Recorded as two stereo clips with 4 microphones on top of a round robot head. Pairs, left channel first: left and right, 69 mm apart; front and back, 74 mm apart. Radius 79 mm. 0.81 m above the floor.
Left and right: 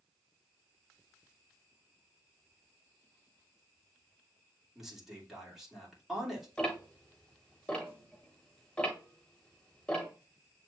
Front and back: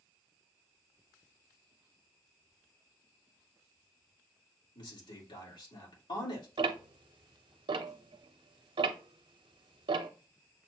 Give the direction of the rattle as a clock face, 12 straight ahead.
No rattle in this recording.